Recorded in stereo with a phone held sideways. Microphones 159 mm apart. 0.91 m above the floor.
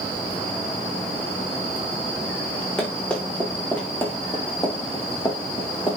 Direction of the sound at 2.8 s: 5° left (ahead or behind).